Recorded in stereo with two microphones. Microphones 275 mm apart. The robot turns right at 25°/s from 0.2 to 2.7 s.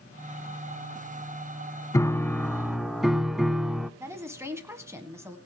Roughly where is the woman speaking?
Centre.